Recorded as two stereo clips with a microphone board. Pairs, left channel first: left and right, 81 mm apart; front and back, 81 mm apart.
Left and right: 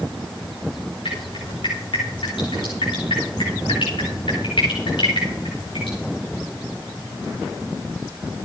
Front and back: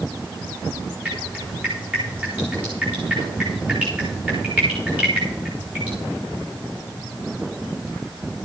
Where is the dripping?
110° left, 7.5 m.